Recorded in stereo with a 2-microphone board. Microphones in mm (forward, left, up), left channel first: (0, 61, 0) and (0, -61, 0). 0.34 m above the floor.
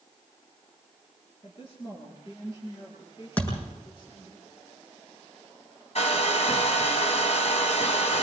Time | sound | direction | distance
1.4 | a woman speaking | 55° left (ahead or behind) | 5.5 m
3.4 | a thud | 15° left (ahead or behind) | 7 m
6.0 | a hair dryer | 65° left (ahead or behind) | 2 m